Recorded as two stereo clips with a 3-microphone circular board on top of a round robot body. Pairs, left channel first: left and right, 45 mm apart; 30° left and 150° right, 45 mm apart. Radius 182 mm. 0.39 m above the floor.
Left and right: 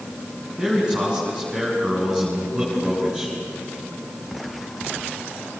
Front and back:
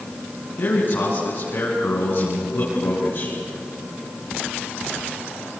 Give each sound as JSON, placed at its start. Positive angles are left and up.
{"t": 0.6, "sound": "a man speaking", "azimuth_deg": -15, "distance_m": 6.0}